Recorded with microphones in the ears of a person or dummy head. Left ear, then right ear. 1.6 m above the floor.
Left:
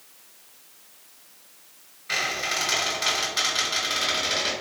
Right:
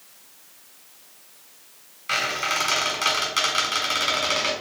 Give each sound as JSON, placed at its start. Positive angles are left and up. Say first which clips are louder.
{"t": 2.1, "sound": "a squeak", "louder": "right 2 dB", "side_deg": -50, "distance_m": 2.0}